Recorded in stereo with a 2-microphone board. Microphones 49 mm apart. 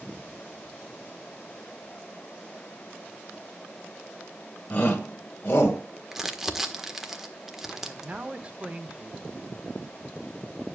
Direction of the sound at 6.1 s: 5° right (ahead or behind).